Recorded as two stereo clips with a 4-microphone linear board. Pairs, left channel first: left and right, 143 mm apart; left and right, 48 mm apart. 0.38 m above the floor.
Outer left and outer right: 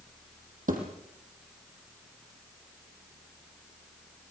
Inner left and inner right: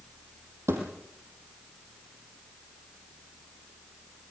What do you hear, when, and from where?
0.7 s a thud: 70° right (ahead or behind), 5 m